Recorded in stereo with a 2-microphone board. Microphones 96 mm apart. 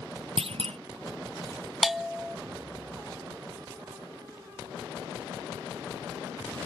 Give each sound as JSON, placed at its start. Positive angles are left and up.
{"t": 0.4, "sound": "a clunk", "side_deg": -85}
{"t": 1.8, "sound": "a bell", "side_deg": 0}